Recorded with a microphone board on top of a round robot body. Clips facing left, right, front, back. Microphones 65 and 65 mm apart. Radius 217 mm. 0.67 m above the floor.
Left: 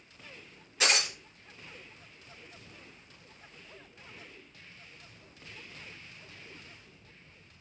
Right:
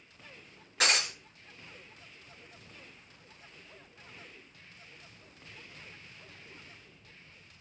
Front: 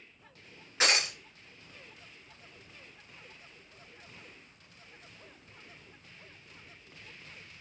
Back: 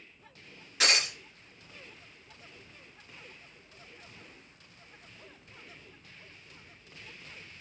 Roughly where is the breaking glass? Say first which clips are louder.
Even, even; ahead right.